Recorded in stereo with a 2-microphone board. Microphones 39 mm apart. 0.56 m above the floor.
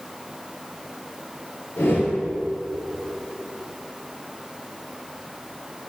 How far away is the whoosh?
About 3 m.